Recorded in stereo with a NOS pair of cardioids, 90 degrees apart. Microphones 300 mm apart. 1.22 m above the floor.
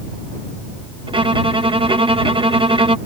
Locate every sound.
1.1 s a violin: 15° right